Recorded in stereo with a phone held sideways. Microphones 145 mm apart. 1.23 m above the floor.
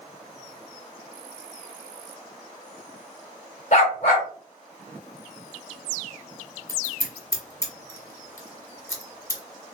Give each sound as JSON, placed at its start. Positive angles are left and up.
{"t": 3.7, "sound": "a dog barking", "side_deg": 50, "distance_m": 1.4}
{"t": 6.7, "sound": "scissors", "side_deg": 20, "distance_m": 1.0}